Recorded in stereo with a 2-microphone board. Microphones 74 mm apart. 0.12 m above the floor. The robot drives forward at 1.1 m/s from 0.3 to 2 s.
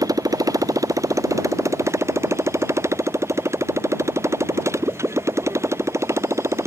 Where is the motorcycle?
55° right (ahead or behind); by 6.7 s 40° right (ahead or behind).